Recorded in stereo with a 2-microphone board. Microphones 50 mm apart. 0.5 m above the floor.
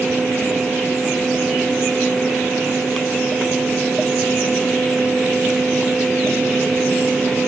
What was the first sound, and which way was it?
Only background noise.